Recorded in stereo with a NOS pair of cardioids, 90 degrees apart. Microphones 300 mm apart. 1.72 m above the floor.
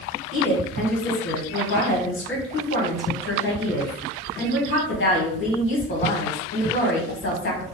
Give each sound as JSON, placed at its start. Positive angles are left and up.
{"t": 0.3, "sound": "a woman speaking", "azimuth_deg": 45, "distance_m": 1.5}